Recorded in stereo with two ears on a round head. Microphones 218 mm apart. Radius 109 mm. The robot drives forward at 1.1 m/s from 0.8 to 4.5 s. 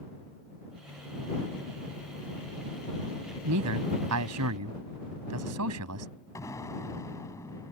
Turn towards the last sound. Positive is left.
turn(degrees=15)  # may be behind; listen again after turning